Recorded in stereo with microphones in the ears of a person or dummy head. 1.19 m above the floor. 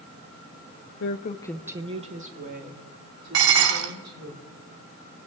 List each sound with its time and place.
1.0 s a woman speaking: 70° left (ahead or behind), 0.8 m; by 4.3 s 55° right (ahead or behind), 4.5 m
3.3 s dishes clattering: 75° right (ahead or behind), 2.0 m